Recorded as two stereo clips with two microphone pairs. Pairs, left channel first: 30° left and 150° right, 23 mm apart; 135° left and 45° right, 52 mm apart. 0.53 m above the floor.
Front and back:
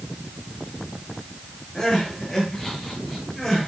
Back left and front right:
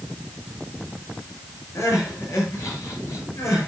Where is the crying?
110° left, 9.5 m.